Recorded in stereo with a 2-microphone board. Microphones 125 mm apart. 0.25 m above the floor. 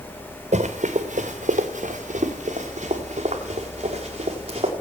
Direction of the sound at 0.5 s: 70° right (ahead or behind).